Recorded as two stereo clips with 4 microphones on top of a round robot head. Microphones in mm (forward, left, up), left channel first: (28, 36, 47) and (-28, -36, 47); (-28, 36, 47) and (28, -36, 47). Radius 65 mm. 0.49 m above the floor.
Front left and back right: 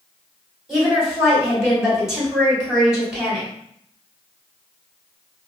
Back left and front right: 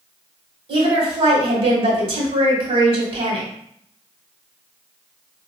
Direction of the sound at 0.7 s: 45° right.